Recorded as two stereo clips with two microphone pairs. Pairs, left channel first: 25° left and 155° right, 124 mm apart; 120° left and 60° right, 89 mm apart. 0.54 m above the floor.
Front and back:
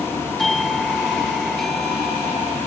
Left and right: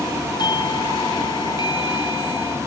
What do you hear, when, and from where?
0.4 s a doorbell: 110° left